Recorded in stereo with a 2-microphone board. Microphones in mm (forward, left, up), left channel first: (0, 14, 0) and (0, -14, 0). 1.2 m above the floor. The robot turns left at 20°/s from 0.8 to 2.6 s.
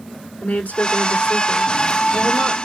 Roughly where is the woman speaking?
Left.